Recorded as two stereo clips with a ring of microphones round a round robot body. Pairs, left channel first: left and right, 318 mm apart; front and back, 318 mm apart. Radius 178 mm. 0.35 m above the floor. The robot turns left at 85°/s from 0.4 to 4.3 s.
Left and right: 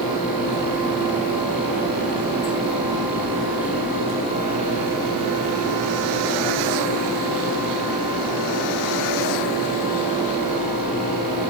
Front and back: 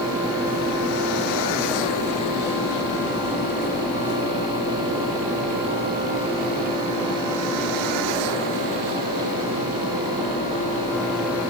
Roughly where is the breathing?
I don't hear breathing.